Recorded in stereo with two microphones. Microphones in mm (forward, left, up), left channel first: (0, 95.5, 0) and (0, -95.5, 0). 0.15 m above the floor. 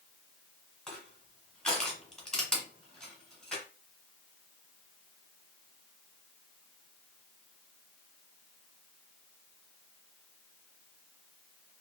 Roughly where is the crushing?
Centre.